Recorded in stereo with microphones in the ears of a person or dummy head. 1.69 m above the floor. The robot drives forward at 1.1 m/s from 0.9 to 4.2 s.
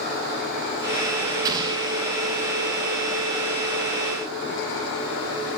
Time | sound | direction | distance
1.4 | an explosion | 20° right (ahead or behind) | 1.1 m